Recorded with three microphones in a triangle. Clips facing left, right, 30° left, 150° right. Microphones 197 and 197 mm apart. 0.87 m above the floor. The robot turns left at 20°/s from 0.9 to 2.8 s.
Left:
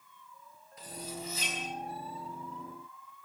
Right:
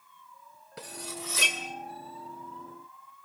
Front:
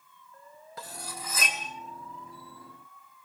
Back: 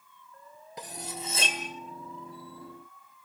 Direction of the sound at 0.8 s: 75° right.